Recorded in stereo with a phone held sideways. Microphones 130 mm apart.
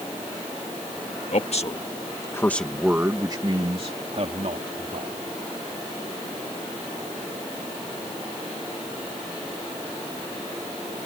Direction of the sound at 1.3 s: 60° left (ahead or behind).